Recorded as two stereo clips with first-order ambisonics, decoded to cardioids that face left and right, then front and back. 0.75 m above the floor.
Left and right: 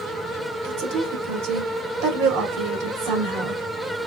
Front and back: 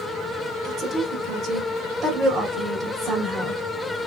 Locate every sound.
0.6 s a woman speaking: 115° right, 1.6 m